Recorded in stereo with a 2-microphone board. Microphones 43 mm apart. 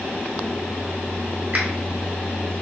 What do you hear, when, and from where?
1.5 s a finger snap: 45° right (ahead or behind), 1.9 m